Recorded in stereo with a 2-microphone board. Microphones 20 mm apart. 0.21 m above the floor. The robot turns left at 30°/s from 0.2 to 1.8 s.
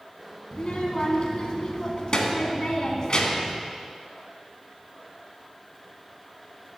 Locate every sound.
0.5 s a child speaking: 100° left, 1.3 m; by 3.6 s 60° left, 1.3 m